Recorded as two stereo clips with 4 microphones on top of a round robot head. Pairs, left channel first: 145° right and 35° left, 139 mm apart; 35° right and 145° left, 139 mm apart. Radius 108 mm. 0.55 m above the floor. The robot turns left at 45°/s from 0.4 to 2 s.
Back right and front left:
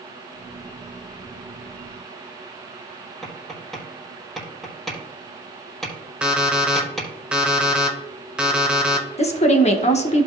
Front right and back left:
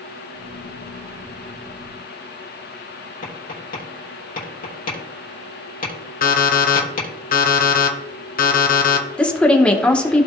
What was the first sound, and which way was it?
Tapping, 60° right.